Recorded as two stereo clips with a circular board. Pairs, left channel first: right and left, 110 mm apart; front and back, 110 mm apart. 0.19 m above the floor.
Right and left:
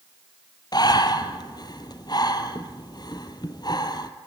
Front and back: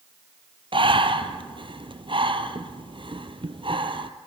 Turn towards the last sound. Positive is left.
turn(degrees=-140)